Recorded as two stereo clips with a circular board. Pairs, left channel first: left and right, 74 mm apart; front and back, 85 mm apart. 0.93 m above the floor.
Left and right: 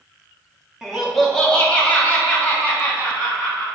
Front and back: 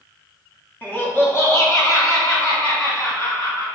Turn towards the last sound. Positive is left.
turn(degrees=40)